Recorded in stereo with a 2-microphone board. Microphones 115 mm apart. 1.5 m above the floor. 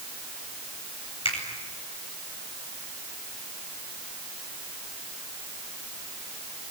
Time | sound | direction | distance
1.2 | a finger snap | 55° left (ahead or behind) | 9 m